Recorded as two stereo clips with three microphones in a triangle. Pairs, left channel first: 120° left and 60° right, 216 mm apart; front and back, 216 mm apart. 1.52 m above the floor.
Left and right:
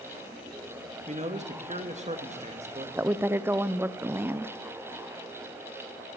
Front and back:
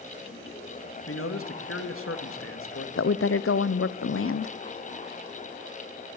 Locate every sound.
1.1 s a man speaking: 5° right, 2.0 m
3.0 s a woman speaking: 20° left, 0.6 m